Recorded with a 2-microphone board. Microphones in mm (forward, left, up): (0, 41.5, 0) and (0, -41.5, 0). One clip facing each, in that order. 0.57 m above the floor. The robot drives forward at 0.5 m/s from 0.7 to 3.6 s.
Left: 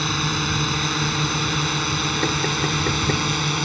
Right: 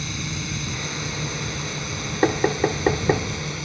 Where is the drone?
65° left (ahead or behind); by 3.6 s 70° left (ahead or behind).